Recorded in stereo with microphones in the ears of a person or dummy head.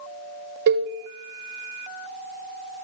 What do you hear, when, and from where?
0.7 s a cowbell: 60° right (ahead or behind), 1.4 m